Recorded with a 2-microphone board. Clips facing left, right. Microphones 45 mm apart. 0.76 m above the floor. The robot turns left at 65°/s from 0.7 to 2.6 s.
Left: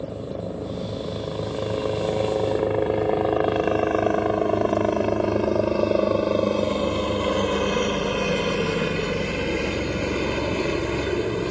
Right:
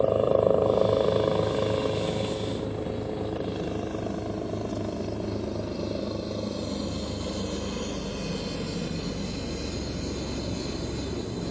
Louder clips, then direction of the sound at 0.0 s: Right 10 dB; 60° right (ahead or behind).